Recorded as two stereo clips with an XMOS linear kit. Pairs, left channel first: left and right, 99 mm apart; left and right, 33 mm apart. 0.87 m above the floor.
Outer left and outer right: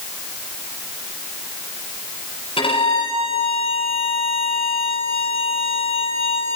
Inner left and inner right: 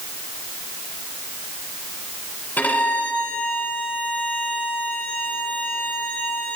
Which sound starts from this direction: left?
A violin, at 2.6 s.